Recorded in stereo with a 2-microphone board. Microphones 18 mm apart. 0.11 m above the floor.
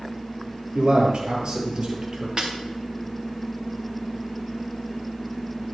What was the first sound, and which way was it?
A man speaking, 55° right (ahead or behind).